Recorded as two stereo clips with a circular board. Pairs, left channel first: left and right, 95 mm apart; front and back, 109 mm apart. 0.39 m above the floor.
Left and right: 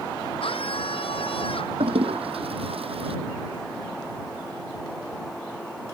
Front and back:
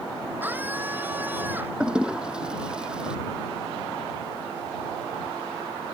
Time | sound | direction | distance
0.4 | a scream | 105° left | ?
1.8 | a toilet flushing | 100° right | ?